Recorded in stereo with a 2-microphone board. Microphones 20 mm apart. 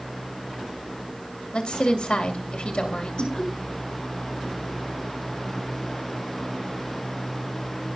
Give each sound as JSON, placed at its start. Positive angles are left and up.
{"t": 1.5, "sound": "a woman speaking", "side_deg": 65, "distance_m": 2.5}
{"t": 3.2, "sound": "laughter", "side_deg": 45, "distance_m": 5.5}